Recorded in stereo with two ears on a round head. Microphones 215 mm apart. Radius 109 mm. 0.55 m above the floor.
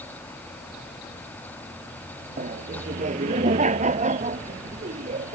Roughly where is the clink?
I don't hear a clink.